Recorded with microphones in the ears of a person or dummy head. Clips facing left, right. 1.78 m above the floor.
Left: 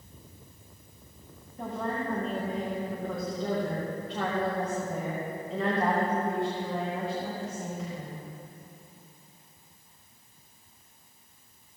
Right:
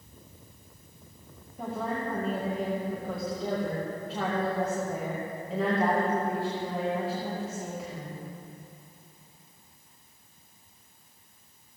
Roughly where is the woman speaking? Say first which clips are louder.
Even; centre.